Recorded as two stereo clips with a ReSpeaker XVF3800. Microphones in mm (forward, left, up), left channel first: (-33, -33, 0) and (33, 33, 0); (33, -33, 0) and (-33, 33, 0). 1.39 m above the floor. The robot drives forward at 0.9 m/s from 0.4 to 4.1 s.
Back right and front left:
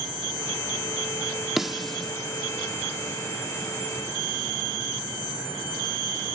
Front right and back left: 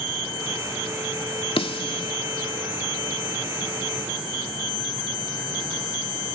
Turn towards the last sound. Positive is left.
turn(degrees=-120)